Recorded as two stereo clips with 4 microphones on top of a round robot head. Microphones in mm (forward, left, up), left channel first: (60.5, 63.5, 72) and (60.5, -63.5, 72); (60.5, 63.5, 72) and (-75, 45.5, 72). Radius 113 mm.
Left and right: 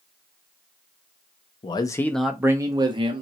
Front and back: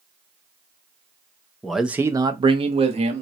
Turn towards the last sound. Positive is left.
turn(degrees=-135)